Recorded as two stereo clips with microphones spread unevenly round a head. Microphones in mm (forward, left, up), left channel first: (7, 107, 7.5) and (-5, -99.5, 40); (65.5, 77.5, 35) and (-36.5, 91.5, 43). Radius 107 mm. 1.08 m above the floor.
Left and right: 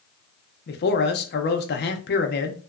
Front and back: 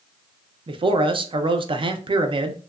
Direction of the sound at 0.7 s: 130° left.